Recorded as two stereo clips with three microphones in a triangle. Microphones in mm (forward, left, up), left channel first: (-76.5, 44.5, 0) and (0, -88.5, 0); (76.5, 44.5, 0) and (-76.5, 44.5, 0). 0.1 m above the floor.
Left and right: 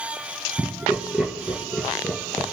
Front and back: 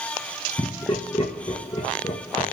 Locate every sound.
0.6 s laughter: 20° left, 2 m